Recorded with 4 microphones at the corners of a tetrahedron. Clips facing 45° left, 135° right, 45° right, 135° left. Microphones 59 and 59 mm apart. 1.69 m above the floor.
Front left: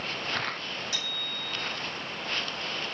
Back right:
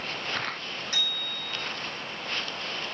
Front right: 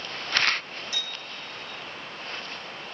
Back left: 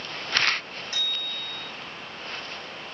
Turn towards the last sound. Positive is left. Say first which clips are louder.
# back right 2 dB, back left 3 dB
turn(degrees=180)